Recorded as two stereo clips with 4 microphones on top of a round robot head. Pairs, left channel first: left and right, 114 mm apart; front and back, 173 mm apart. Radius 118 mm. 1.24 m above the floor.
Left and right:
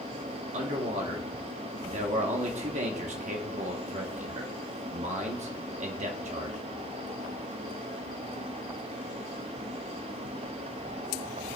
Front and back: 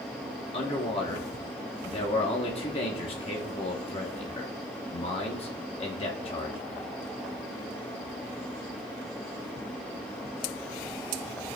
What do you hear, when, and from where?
0.5 s a man speaking: 65° right, 1.0 m